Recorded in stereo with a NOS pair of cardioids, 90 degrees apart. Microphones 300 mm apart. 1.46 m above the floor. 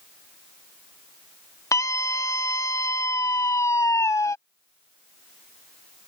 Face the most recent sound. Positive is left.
turn(degrees=10)